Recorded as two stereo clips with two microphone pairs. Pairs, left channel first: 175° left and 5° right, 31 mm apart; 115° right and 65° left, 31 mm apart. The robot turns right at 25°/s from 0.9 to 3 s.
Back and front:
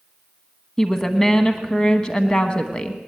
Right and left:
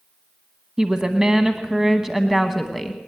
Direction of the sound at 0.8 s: 110° left.